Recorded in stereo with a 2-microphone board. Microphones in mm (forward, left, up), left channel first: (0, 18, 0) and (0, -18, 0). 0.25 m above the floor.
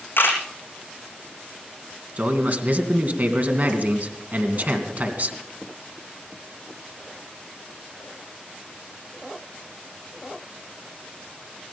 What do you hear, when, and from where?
0.2 s a camera shutter: 80° left, 3.5 m
2.2 s a man speaking: 50° right (ahead or behind), 2.5 m